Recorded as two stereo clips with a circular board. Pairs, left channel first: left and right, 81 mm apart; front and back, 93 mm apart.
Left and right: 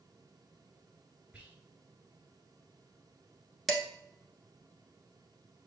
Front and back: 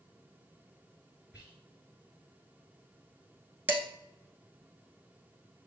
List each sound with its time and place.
1.3 s whispering: 145° right, 1.8 m
3.7 s dishes clattering: straight behind, 1.0 m